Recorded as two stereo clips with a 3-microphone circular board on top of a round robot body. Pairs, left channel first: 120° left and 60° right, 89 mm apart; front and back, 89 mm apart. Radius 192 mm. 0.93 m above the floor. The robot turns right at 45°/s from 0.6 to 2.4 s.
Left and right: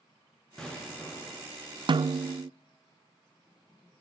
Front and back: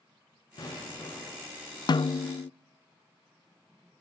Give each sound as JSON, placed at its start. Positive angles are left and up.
{"t": 0.6, "sound": "an explosion", "azimuth_deg": 40, "distance_m": 9.5}
{"t": 1.9, "sound": "a snare drum", "azimuth_deg": -35, "distance_m": 0.5}